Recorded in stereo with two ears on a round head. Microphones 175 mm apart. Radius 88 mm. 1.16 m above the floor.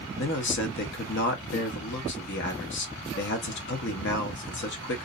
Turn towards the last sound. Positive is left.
turn(degrees=60)  # may be behind; listen again after turning